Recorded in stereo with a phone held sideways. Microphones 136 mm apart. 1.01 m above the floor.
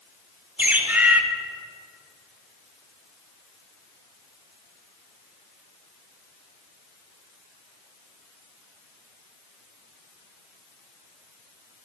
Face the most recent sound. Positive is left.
turn(degrees=-10)  # may be behind; listen again after turning